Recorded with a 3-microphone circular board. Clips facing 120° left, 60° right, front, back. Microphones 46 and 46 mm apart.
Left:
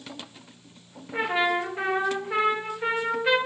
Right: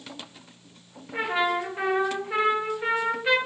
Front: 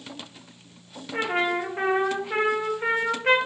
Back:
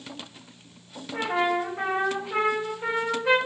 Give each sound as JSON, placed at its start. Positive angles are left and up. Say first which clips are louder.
{"t": 1.1, "sound": "a trumpet", "louder": "left 1 dB, even", "azimuth_deg": 35, "distance_m": 0.7}